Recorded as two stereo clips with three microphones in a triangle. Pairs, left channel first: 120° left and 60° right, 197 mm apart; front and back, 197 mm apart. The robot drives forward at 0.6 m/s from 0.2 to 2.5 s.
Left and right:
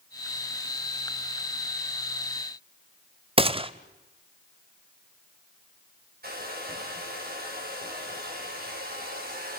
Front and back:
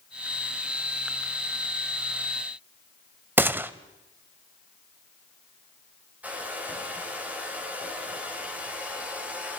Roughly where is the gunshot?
Right.